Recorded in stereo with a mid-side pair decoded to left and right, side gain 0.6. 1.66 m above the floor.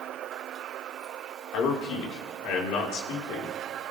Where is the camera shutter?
I don't hear a camera shutter.